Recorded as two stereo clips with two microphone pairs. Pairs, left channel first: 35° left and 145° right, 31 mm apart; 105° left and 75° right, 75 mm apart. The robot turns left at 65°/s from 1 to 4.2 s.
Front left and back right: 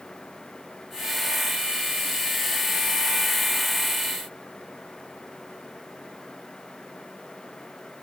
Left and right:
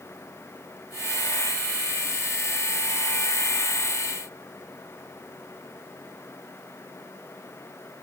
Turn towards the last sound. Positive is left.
No sound to turn to.